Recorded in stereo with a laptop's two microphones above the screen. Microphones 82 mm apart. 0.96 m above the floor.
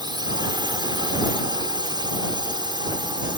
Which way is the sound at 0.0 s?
65° right (ahead or behind).